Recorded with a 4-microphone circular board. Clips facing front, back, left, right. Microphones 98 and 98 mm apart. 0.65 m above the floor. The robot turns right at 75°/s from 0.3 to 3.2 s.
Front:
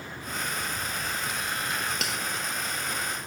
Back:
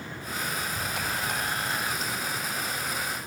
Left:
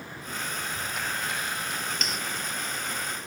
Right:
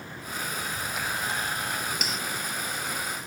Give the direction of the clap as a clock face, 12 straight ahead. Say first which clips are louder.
Back 1 dB, right 1 dB; 7 o'clock.